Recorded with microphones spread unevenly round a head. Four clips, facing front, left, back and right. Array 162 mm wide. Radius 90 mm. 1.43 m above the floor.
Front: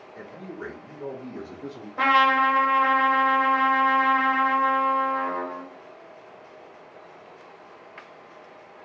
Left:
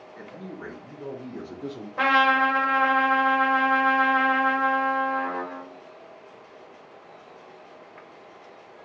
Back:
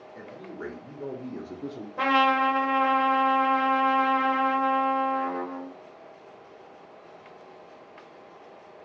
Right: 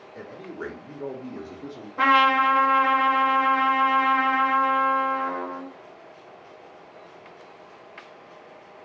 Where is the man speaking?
130° right, 0.9 m; by 1.9 s 140° left, 0.6 m.